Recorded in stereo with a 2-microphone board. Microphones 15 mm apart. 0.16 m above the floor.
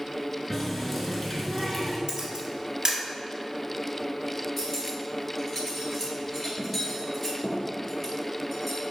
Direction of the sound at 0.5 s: 5° left (ahead or behind).